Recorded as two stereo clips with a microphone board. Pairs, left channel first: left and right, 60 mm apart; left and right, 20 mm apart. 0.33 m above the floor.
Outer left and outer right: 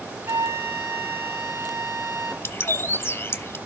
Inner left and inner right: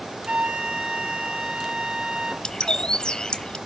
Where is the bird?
45° left (ahead or behind), 0.8 m.